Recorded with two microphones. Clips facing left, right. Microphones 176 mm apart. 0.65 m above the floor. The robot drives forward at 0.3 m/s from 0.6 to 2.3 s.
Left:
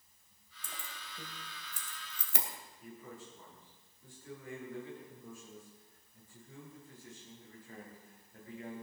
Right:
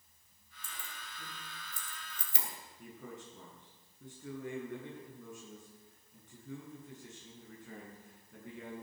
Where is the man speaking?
80° right, 7.5 m.